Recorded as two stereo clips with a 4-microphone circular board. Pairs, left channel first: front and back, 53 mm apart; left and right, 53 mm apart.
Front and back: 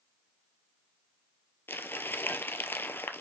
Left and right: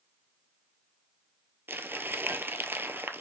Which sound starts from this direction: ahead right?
Crumpling, at 1.7 s.